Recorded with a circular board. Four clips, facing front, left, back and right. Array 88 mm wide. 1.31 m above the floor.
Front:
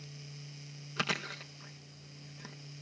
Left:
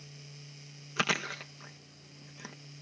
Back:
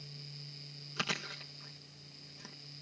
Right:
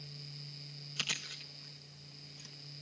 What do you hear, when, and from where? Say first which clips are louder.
1.0 s chewing: left 14 dB, front 3 dB; 80° left